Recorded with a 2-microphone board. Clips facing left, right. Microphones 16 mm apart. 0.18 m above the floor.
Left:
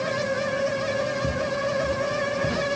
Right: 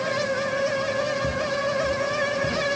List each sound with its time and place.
1.2 s footsteps: 10° left (ahead or behind)